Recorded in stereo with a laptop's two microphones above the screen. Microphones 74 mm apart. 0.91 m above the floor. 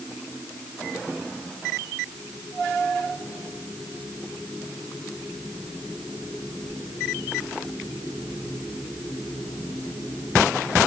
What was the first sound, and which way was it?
Only background noise.